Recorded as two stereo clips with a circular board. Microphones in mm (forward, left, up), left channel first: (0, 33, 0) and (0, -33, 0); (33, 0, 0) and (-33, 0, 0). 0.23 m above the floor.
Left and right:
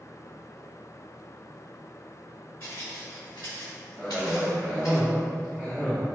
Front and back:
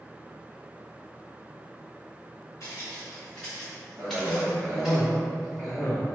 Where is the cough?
150° left, 1.6 m.